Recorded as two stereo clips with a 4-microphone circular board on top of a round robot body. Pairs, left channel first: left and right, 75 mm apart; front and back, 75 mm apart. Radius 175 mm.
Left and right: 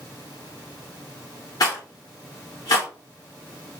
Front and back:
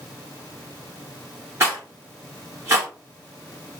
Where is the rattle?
125° left, 0.6 m.